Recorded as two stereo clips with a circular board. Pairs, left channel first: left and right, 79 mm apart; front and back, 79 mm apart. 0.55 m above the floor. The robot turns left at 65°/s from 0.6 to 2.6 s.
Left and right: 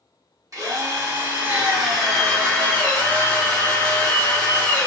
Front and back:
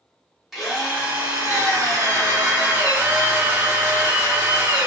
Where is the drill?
90° right, 1.1 m; by 4.9 s 140° left, 1.1 m.